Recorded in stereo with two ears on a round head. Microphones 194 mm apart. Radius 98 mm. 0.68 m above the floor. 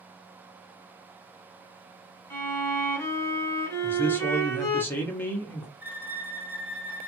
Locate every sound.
2.3 s a violin: 15° left (ahead or behind), 0.9 m
3.8 s a man speaking: 10° left (ahead or behind), 0.7 m
5.8 s a violin: 10° right (ahead or behind), 0.6 m